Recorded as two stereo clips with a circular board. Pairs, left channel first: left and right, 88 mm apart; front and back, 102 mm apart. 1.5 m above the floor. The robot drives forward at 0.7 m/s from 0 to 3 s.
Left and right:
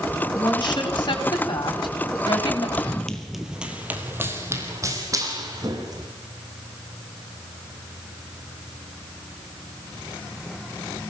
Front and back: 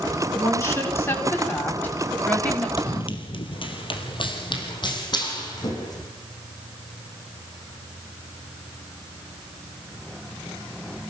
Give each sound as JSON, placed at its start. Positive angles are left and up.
{"t": 0.3, "sound": "a woman speaking", "azimuth_deg": 60, "distance_m": 5.0}
{"t": 2.8, "sound": "running footsteps", "azimuth_deg": 20, "distance_m": 2.5}